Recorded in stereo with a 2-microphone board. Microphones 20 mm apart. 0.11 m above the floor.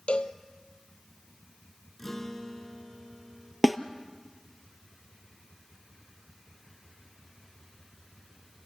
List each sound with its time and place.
0.1 s a cowbell: 70° left (ahead or behind), 0.9 m
2.0 s a guitar: 15° left (ahead or behind), 1.6 m
3.6 s a snare drum: 5° left (ahead or behind), 0.8 m